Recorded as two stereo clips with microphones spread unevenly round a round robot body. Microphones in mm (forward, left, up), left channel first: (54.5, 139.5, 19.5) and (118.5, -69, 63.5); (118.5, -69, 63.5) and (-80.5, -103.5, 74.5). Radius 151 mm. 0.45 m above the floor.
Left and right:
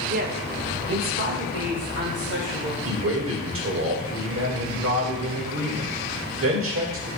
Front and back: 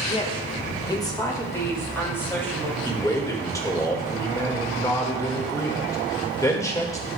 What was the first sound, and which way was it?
A woman speaking, 30° right.